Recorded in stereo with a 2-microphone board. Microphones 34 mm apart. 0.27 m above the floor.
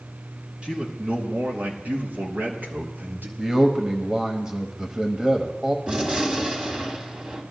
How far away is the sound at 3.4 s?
About 1.1 m.